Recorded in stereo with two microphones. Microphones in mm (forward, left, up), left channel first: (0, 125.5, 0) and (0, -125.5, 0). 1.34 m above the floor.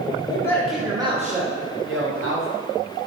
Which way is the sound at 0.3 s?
20° left (ahead or behind).